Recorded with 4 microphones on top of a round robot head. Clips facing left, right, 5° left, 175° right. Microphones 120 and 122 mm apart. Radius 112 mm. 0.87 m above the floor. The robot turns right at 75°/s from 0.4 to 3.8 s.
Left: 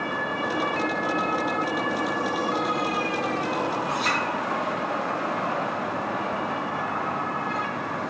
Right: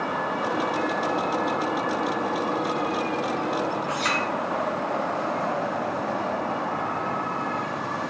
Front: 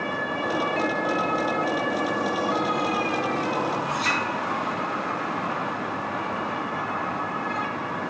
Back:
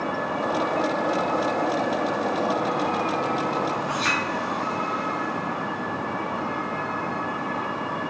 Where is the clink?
135° right, 1.4 m.